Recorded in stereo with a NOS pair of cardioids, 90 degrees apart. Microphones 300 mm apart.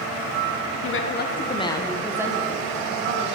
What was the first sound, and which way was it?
A woman speaking, 45° left.